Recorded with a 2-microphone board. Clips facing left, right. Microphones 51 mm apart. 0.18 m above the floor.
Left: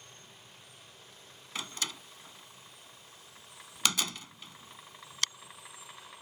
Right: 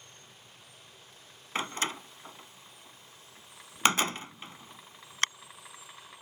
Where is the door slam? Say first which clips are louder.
Right 6 dB; 40° right (ahead or behind).